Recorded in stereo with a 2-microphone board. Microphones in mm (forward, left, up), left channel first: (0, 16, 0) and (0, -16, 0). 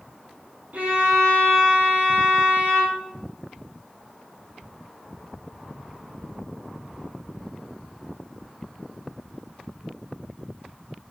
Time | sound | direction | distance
0.7 | a violin | 65° right (ahead or behind) | 2 m